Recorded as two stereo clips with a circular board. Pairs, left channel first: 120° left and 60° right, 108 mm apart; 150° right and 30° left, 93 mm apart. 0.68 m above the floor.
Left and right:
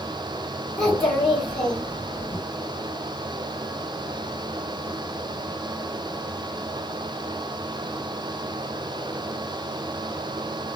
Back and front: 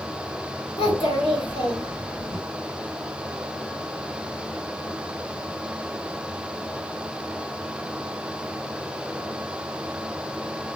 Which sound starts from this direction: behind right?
A child speaking, at 0.8 s.